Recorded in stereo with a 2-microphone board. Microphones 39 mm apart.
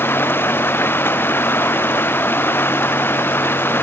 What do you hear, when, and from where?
0.0 s running water: 80° left